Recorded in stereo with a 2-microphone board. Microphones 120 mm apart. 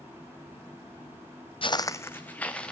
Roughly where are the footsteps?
Left.